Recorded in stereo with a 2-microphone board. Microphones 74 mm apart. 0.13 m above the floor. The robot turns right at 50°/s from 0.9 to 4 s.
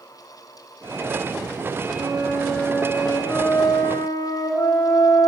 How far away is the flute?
About 3 m.